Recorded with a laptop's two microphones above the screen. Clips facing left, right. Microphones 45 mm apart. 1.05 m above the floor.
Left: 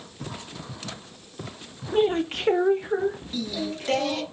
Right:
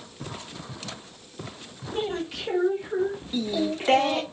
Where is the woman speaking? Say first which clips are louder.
Left 7 dB; 20° left (ahead or behind), 0.8 m; by 3.2 s 70° left (ahead or behind), 1.4 m.